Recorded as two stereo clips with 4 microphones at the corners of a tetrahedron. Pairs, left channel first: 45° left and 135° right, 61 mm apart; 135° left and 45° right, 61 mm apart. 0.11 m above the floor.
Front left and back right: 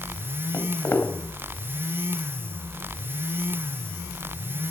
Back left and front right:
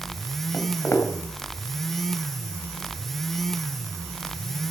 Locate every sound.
0.5 s footsteps: 90° left, 2.5 m